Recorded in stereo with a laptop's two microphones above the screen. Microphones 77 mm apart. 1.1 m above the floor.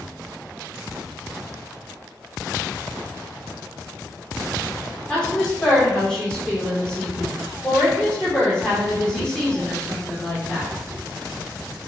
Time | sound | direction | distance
5.1 | a woman speaking | 10° left (ahead or behind) | 4 m